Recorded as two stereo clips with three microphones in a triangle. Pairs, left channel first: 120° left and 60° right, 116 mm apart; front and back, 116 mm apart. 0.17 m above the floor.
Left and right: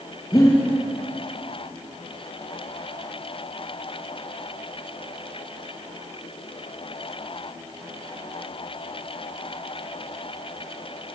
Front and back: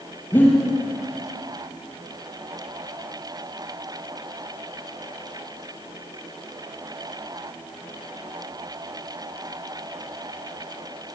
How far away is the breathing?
About 7.5 m.